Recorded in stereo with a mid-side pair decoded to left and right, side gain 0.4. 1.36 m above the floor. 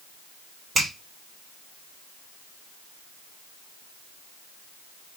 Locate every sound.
0.8 s a finger snap: 40° right, 3 m